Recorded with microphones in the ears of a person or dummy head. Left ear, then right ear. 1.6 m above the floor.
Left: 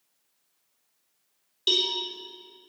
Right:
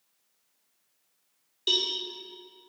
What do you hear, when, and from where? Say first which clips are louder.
1.7 s a cowbell: left 2 dB; 5° left (ahead or behind), 2.5 m